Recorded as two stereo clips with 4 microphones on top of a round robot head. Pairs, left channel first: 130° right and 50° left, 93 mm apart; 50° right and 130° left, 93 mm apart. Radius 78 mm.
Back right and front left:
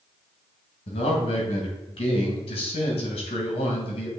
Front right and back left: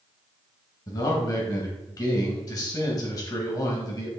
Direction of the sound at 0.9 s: 100° right.